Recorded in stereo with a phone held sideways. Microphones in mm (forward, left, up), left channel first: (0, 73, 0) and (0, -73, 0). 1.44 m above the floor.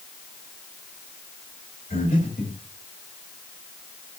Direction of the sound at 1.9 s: 85° left.